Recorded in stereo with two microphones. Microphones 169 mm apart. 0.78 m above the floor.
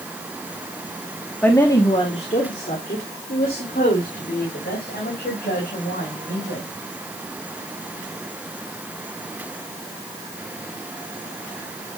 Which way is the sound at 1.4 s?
10° left (ahead or behind).